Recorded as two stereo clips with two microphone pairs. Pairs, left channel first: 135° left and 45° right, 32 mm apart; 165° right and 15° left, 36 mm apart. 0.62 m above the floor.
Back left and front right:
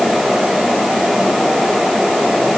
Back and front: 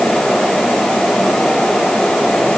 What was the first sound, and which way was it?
Only background noise.